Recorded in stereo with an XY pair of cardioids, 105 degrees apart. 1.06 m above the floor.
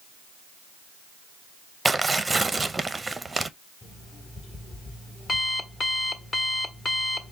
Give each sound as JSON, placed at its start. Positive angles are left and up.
{"t": 1.9, "sound": "tearing paper", "azimuth_deg": -15, "distance_m": 0.6}
{"t": 3.8, "sound": "an alarm clock", "azimuth_deg": 45, "distance_m": 1.3}